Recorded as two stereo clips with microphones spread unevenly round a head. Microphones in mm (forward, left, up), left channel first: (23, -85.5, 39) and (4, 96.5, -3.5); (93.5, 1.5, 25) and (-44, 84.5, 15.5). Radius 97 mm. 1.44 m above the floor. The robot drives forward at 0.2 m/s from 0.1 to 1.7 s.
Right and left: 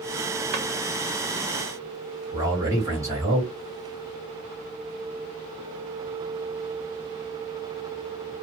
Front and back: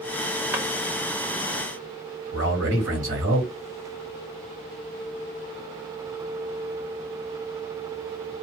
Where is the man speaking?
170° left, 1.6 m.